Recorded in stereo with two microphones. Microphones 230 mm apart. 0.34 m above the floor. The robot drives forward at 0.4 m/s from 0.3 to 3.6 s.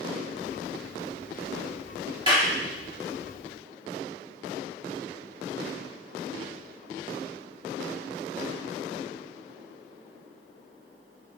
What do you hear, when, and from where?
2.3 s a clap: 20° right (ahead or behind), 1.6 m